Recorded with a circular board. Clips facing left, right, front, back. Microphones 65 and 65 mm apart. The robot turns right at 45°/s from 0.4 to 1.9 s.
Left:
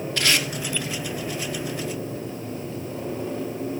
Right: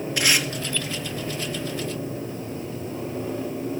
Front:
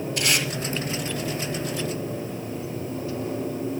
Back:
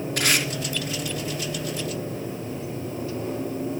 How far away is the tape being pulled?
About 3.5 m.